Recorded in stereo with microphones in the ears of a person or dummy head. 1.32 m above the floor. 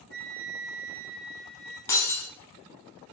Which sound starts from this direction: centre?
Breaking glass, at 1.9 s.